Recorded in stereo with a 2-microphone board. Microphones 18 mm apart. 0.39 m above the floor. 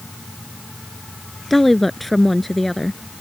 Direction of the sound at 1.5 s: 10° left (ahead or behind).